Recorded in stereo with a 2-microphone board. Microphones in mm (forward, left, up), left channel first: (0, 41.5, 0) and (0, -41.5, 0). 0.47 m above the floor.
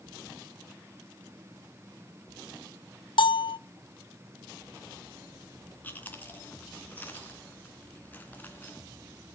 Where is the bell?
80° left, 0.5 m.